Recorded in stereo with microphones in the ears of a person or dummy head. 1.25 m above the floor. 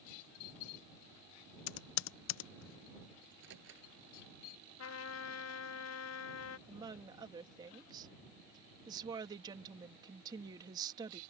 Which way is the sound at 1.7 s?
85° left.